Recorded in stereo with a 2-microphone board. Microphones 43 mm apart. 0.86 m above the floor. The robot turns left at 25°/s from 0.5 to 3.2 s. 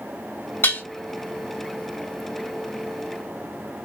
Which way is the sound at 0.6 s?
60° left (ahead or behind).